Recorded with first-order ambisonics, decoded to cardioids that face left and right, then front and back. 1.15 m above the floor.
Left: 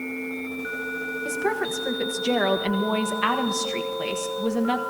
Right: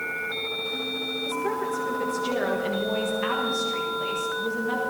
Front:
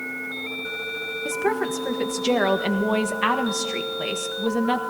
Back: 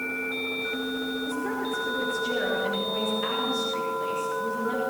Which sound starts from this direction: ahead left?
A woman speaking, at 1.2 s.